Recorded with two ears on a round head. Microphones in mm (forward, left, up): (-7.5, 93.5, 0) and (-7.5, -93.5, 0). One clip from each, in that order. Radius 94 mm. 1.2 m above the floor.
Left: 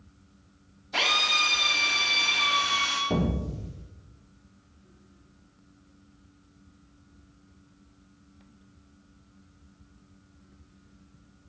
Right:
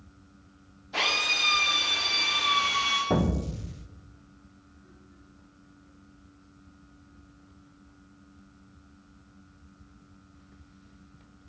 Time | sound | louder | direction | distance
0.9 | a drill | left 2 dB | 25° left (ahead or behind) | 6.5 m
3.1 | an explosion | right 2 dB | 55° right (ahead or behind) | 1.1 m